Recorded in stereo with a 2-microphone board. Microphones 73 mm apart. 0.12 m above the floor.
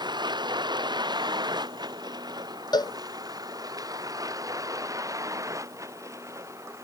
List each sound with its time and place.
0.0 s a vehicle: 85° right; by 6.8 s 40° right (ahead or behind)
2.7 s a cowbell: 75° left (ahead or behind)